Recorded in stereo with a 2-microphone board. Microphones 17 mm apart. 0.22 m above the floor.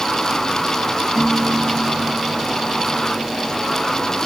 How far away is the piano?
About 8.5 m.